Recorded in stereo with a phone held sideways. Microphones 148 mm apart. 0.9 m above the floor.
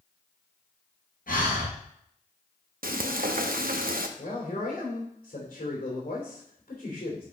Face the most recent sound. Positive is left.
turn(degrees=75)  # may be behind; listen again after turning